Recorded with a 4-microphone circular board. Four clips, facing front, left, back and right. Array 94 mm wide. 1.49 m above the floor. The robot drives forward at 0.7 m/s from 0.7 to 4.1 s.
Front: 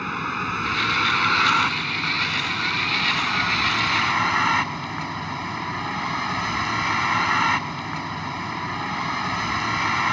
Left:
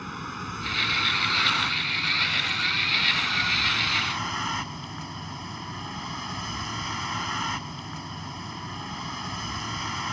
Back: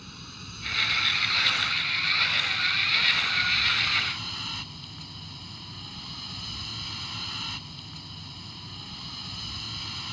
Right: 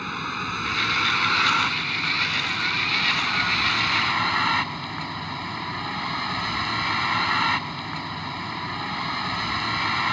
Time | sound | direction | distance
0.0 | a vehicle | 15° right | ?